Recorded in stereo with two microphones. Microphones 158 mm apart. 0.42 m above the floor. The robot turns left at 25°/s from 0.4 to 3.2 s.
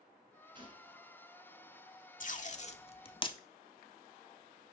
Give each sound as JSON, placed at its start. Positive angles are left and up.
{"t": 0.6, "sound": "a gunshot", "side_deg": -30, "distance_m": 1.5}
{"t": 2.2, "sound": "tape being pulled", "side_deg": 55, "distance_m": 0.6}